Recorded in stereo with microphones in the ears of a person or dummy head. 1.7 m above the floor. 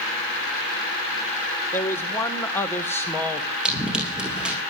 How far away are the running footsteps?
About 5 m.